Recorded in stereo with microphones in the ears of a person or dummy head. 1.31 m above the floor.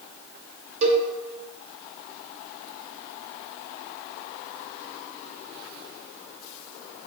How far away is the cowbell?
About 1.1 m.